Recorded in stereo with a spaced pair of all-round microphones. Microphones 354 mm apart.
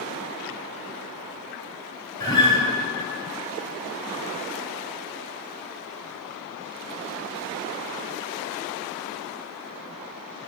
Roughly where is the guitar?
Left.